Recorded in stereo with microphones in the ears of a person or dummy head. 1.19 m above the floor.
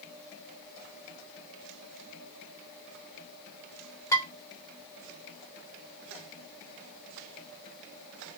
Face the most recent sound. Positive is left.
turn(degrees=15)  # may be behind; listen again after turning